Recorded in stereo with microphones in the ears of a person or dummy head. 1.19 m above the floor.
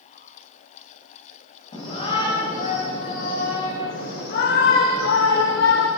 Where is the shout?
40° left (ahead or behind), 5.5 m; by 5.9 s 85° left, 3 m.